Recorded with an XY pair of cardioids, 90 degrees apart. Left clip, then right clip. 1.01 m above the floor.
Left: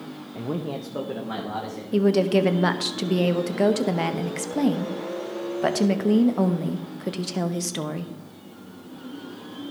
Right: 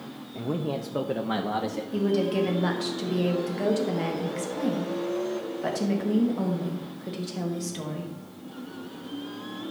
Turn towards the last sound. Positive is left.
turn(degrees=65)